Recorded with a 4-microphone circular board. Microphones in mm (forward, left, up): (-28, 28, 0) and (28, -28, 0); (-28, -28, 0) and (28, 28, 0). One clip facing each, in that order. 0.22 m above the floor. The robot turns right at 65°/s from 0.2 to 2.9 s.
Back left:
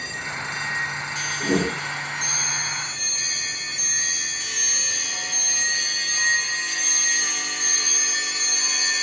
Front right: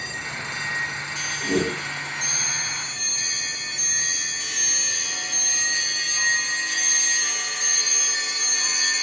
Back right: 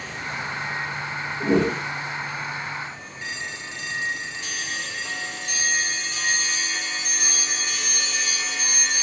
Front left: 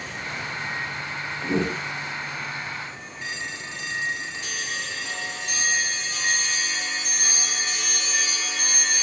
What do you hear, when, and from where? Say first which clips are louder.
1.4 s a whoosh: back left 1 dB, back right 5 dB; 170° right, 7.5 m; by 1.8 s 145° right, 7.5 m